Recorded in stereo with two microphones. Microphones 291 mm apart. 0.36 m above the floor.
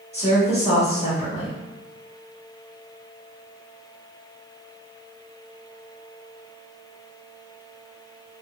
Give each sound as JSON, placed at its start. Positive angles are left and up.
{"t": 0.1, "sound": "a woman speaking", "side_deg": 20, "distance_m": 1.5}